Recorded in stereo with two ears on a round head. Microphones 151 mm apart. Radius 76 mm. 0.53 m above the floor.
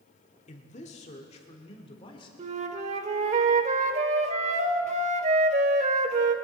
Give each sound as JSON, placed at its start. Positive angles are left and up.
{"t": 0.5, "sound": "a man speaking", "side_deg": 45, "distance_m": 1.5}
{"t": 2.4, "sound": "a flute", "side_deg": -40, "distance_m": 1.0}